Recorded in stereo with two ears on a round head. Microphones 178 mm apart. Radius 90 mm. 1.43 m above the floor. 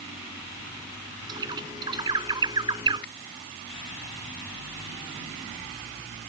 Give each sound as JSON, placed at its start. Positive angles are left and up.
{"t": 1.3, "sound": "a bird", "side_deg": -20}
{"t": 3.0, "sound": "a finger snap", "side_deg": 60}